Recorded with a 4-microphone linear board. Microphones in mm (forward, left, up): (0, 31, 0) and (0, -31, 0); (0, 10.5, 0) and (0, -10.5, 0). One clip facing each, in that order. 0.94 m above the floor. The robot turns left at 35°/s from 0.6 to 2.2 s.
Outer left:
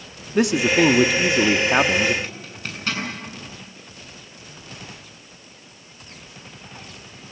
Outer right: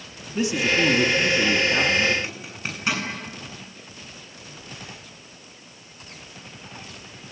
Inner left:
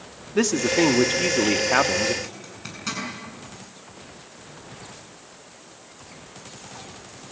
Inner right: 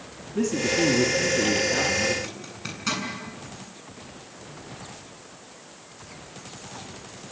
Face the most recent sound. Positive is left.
turn(degrees=-15)  # may be behind; listen again after turning